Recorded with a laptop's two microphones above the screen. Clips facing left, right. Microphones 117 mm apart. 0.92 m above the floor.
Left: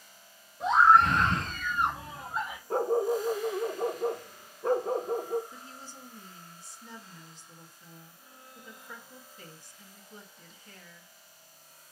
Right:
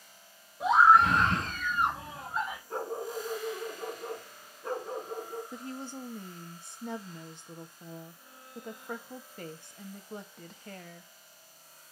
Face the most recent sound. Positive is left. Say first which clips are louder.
# right 8 dB
turn(degrees=-60)  # may be behind; listen again after turning